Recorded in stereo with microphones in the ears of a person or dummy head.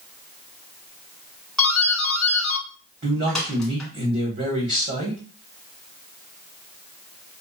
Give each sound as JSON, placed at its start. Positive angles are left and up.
{"t": 1.6, "sound": "a doorbell", "side_deg": 0, "distance_m": 1.2}
{"t": 3.0, "sound": "a man speaking", "side_deg": -35, "distance_m": 1.4}